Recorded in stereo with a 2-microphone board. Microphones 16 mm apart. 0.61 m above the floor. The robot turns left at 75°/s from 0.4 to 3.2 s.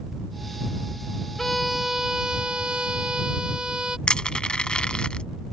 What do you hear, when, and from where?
1.4 s a violin: 15° left; by 4.0 s 120° right
4.1 s crushing: 75° left (ahead or behind)